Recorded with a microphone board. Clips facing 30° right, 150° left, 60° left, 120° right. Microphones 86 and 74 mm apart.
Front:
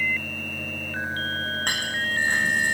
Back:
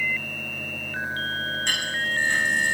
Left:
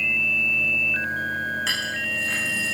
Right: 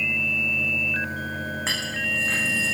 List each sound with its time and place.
1.7 s a clink: 70° right, 8.5 m